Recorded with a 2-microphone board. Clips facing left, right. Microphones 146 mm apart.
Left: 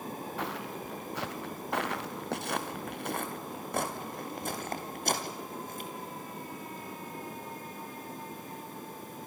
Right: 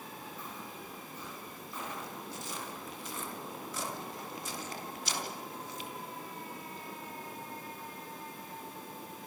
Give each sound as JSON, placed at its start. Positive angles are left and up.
{"t": 0.4, "sound": "footsteps", "side_deg": 80, "distance_m": 1.8}